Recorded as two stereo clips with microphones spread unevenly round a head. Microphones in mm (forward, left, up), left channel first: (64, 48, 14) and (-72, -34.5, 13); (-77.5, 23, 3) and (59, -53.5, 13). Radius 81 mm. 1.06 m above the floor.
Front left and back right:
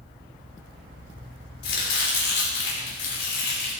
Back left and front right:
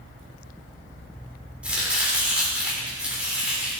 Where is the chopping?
55° left, 3 m.